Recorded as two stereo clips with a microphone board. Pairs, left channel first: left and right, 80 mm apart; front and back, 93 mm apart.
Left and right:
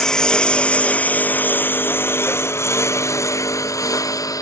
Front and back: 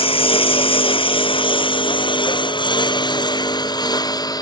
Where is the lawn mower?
10° left; by 4.4 s 45° left.